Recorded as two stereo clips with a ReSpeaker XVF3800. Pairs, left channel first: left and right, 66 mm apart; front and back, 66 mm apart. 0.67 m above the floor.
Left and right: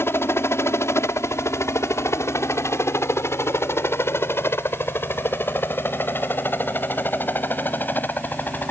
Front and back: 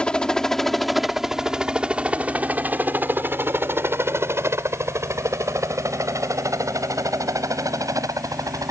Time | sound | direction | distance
0.0 | a helicopter | 70° left | ?